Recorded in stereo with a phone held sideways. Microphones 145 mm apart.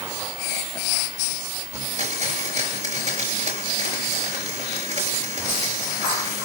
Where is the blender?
50° right (ahead or behind), 6 m.